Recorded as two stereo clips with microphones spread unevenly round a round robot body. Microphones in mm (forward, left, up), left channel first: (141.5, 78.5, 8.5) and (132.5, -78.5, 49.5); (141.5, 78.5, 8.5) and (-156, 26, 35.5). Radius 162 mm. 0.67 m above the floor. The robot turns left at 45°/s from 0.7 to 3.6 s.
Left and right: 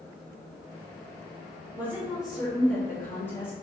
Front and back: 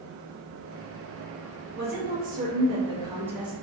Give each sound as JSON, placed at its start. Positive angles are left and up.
{"t": 1.8, "sound": "a woman speaking", "azimuth_deg": 175, "distance_m": 0.7}